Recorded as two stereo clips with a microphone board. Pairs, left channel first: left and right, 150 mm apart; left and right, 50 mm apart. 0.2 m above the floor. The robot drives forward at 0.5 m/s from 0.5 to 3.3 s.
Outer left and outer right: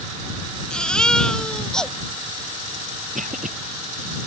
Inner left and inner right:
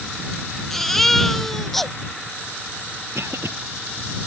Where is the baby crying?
5° left (ahead or behind).